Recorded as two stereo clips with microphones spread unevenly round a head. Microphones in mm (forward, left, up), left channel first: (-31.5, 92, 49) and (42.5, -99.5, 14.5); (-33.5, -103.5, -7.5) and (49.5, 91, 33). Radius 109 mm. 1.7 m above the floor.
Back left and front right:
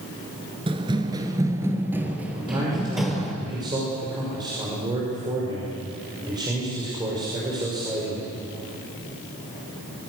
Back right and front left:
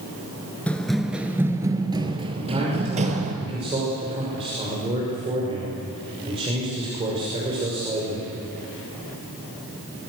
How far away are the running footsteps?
About 1.7 m.